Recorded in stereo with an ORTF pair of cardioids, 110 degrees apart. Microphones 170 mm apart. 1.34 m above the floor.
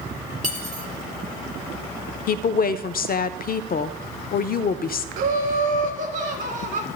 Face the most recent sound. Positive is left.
turn(degrees=-55)